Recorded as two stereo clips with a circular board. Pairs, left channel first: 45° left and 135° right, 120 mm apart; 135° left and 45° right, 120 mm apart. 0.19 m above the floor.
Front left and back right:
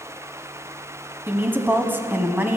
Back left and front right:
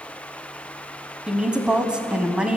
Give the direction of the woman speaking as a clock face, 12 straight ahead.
4 o'clock.